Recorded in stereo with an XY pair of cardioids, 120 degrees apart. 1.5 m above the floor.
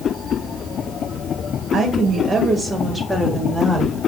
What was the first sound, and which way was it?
A woman speaking, 45° right.